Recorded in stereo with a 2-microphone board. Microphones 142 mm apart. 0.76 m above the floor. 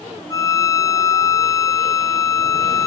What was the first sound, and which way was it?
A violin, 20° left (ahead or behind).